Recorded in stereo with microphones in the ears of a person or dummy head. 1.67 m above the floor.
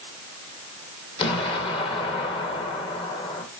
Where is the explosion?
35° left (ahead or behind), 2 m.